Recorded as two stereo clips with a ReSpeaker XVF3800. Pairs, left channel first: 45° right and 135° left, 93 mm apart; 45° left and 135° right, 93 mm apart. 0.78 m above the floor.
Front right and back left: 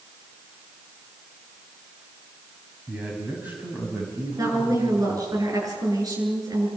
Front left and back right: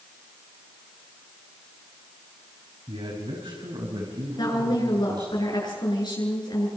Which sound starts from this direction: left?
A woman speaking, at 4.4 s.